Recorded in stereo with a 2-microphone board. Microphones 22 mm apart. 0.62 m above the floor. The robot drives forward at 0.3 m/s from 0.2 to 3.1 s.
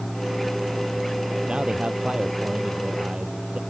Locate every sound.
1.5 s a man speaking: 55° right (ahead or behind)